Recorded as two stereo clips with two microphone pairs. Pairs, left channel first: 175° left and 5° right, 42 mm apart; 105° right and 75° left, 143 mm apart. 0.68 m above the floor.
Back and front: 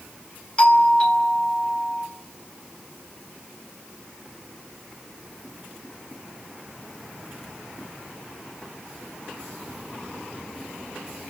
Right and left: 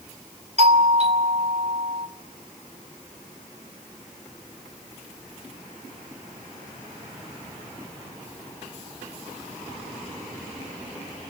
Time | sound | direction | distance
0.6 | a doorbell | 115° left | 3 m